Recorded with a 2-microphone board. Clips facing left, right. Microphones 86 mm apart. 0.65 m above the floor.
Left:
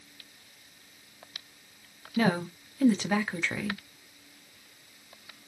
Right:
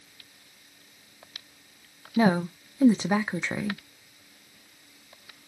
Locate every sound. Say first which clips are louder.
2.2 s a woman speaking: right 4 dB; 20° right (ahead or behind), 0.6 m